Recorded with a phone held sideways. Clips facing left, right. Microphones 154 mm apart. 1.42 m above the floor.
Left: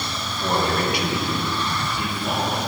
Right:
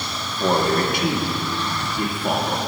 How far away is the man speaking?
About 1.9 m.